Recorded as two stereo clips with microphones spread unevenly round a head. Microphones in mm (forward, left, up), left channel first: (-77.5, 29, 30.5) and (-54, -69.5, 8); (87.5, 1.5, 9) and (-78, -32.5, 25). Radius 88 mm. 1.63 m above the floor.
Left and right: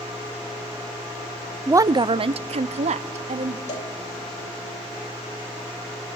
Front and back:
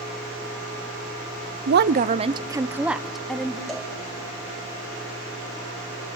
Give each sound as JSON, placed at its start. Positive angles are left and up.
{"t": 1.7, "sound": "a woman speaking", "azimuth_deg": -145, "distance_m": 0.7}
{"t": 3.7, "sound": "a cowbell", "azimuth_deg": 100, "distance_m": 4.0}